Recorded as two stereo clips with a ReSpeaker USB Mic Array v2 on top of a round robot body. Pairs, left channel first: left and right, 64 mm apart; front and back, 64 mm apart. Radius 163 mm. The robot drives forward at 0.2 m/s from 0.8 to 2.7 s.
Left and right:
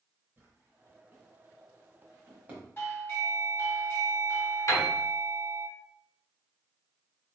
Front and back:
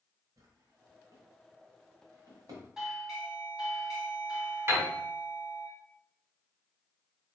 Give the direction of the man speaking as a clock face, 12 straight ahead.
I don't hear a man speaking.